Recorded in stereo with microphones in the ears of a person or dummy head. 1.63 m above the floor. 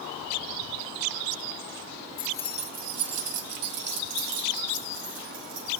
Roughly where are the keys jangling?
Left.